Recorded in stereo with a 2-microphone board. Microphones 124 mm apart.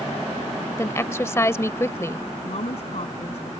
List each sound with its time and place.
0.8 s a woman speaking: 20° left (ahead or behind)
2.4 s a woman speaking: 60° left (ahead or behind)